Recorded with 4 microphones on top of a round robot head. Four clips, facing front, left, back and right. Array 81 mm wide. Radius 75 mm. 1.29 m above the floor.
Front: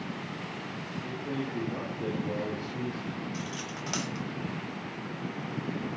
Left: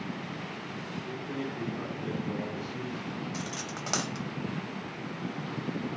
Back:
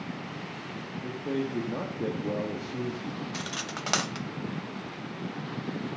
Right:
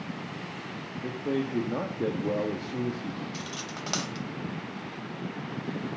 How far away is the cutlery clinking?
About 0.6 m.